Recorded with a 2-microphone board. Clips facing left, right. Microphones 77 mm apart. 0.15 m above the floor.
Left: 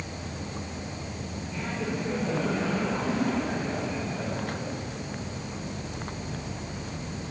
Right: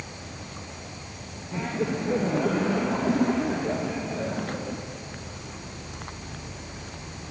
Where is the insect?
40° left (ahead or behind), 1.9 m.